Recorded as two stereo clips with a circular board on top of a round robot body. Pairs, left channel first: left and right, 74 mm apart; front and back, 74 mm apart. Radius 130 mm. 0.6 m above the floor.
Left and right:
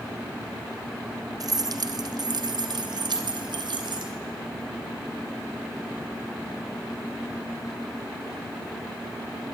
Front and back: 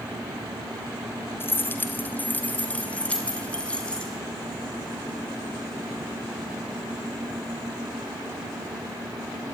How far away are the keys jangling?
About 1.5 m.